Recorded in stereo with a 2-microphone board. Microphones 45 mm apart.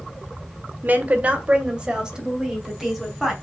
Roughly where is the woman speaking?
Right.